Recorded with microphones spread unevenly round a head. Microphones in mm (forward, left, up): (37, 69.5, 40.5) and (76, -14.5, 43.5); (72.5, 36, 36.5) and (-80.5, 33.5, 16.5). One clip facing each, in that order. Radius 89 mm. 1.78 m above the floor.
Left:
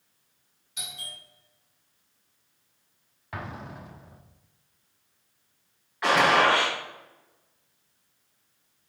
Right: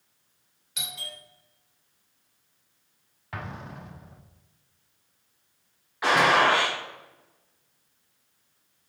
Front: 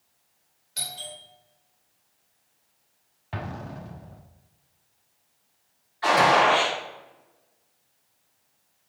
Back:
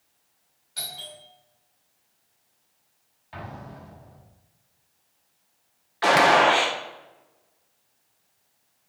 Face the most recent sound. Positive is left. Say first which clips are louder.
# even, back 1 dB
turn(degrees=-150)